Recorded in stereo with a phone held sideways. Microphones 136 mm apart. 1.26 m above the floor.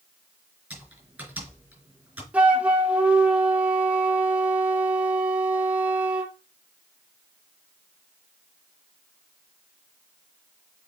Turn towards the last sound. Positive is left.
turn(degrees=-10)  # may be behind; listen again after turning